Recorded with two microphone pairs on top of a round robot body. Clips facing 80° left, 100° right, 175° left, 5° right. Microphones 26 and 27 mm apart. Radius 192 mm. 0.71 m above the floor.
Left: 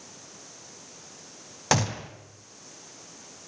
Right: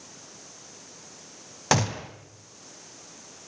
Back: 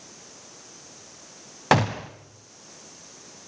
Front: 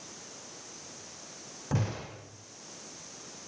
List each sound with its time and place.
1.7 s a gunshot: 175° left, 1.1 m